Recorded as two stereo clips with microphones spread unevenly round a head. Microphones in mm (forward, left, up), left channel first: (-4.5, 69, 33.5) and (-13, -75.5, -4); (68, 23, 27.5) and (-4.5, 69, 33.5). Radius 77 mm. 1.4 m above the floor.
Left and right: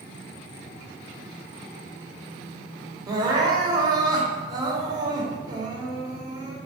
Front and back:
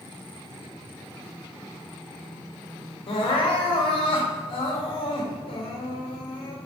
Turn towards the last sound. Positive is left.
turn(degrees=-35)